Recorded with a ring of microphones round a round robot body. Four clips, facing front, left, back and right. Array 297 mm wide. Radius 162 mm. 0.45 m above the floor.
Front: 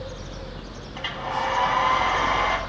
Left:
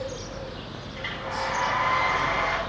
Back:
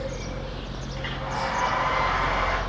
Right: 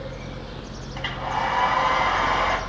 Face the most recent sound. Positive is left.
turn(degrees=-55)